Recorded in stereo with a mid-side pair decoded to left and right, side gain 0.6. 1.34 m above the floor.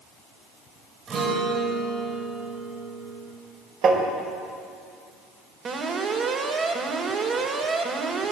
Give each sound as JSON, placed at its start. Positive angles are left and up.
{"t": 1.1, "sound": "a guitar", "azimuth_deg": -40, "distance_m": 8.0}
{"t": 3.8, "sound": "tapping", "azimuth_deg": -50, "distance_m": 5.5}
{"t": 5.7, "sound": "an alarm", "azimuth_deg": -45, "distance_m": 4.0}